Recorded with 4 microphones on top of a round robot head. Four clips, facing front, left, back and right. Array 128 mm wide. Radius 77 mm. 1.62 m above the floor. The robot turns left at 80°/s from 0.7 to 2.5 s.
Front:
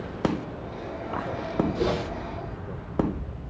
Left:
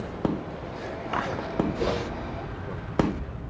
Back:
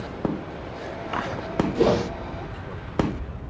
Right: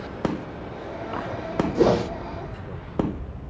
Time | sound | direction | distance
1.8 | a whoosh | 115° right | 0.5 m